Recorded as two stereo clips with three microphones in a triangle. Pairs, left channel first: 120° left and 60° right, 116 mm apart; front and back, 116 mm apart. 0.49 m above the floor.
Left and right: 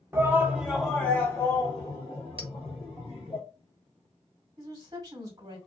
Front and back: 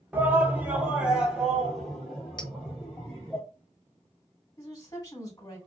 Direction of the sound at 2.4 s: 40° right.